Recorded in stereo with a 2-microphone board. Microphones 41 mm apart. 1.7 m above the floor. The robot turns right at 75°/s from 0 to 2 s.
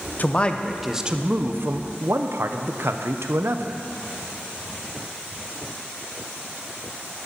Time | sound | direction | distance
0.2 | a man speaking | 135° left | 0.9 m